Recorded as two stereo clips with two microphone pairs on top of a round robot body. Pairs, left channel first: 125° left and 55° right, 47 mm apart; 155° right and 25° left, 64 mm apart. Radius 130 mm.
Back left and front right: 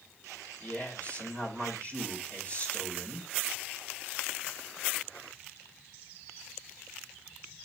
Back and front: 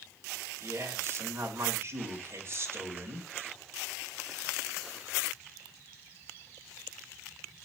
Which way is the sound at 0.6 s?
75° left.